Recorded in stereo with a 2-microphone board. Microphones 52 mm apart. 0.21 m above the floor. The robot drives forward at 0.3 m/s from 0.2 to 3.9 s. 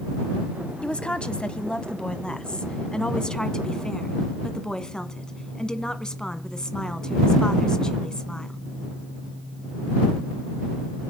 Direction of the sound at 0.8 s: 20° left (ahead or behind).